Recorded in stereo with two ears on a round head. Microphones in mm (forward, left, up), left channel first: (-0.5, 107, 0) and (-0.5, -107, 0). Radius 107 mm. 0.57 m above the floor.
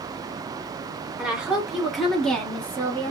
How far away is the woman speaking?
About 1.8 m.